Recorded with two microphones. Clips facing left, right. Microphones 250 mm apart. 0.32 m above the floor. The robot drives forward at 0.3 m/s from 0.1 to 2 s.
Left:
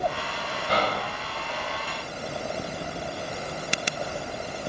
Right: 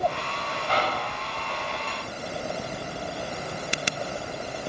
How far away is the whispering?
About 1.1 m.